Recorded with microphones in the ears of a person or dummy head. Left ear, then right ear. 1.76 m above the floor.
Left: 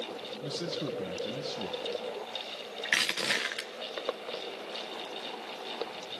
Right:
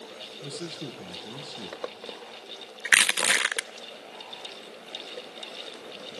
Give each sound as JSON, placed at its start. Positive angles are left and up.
{"t": 0.4, "sound": "a man speaking", "side_deg": 5, "distance_m": 1.6}
{"t": 2.9, "sound": "crushing", "side_deg": -25, "distance_m": 0.5}